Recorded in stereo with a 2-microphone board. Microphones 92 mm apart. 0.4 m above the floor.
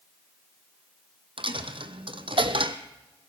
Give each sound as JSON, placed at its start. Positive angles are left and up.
{"t": 1.4, "sound": "a dropped coin", "side_deg": -70, "distance_m": 1.3}